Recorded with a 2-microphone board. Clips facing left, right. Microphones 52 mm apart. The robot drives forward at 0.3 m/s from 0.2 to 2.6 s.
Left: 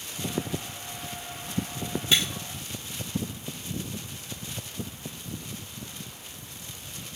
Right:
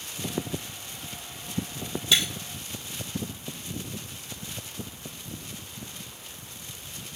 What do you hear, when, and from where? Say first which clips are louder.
2.1 s breaking glass: even; 35° left (ahead or behind), 1.5 m; by 2.2 s 30° left (ahead or behind), 1.6 m